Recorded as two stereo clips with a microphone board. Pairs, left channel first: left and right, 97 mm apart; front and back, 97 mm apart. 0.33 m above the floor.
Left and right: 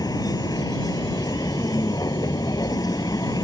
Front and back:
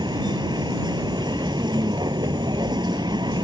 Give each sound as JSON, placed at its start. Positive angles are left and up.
{"t": 0.0, "sound": "a vehicle", "azimuth_deg": 140}